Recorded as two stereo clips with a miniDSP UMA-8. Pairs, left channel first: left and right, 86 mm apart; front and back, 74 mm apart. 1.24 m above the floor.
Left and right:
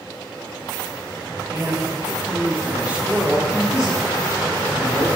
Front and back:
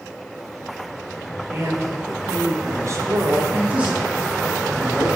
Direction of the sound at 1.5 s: 130° right.